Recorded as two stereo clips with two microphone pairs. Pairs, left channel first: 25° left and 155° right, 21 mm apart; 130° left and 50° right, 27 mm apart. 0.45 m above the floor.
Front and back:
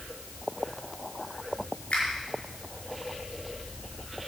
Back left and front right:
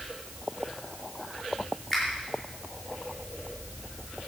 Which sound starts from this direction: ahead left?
A finger snap, at 1.9 s.